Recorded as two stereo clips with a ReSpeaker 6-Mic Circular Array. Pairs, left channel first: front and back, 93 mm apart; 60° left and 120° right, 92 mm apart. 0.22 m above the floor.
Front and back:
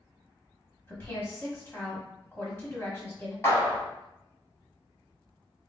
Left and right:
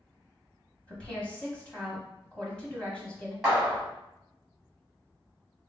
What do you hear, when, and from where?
0.9 s a woman speaking: straight ahead, 1.0 m
3.4 s a clap: 35° right, 1.6 m